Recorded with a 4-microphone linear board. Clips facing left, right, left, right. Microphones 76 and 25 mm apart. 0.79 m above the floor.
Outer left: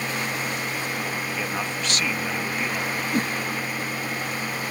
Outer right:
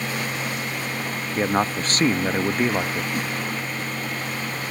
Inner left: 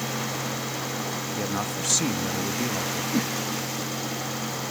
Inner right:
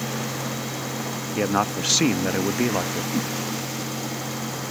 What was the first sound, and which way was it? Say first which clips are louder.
A man speaking: outer right 6 dB, inner right 9 dB; 40° right (ahead or behind).